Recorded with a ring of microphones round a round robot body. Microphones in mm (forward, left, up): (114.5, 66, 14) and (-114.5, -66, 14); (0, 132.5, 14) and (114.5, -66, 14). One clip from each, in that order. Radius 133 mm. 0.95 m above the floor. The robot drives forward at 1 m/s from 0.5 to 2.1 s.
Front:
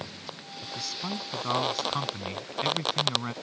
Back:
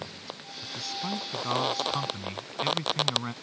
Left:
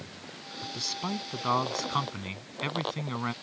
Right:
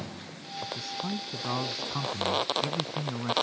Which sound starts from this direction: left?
A man speaking, at 0.6 s.